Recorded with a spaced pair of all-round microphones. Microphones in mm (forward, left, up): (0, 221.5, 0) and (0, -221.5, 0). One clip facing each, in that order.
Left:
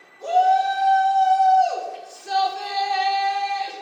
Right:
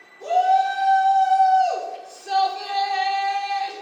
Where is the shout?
10° right (ahead or behind), 1.9 m; by 3.7 s 55° left (ahead or behind), 0.8 m.